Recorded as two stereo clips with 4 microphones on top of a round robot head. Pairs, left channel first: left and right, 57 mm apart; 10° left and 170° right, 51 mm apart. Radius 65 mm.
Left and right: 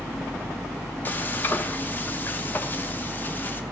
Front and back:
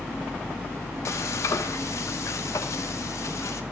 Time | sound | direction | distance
1.1 | frying | 35° left | 1.0 m